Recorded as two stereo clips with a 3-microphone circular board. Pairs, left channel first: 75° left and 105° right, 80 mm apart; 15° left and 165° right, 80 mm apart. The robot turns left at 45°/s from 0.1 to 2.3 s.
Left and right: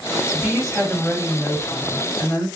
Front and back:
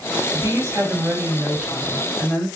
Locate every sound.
0.3 s a woman speaking: 170° left, 2.0 m; by 2.5 s 80° left, 2.0 m